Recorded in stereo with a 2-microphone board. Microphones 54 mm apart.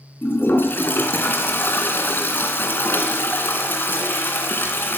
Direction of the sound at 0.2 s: 40° left (ahead or behind).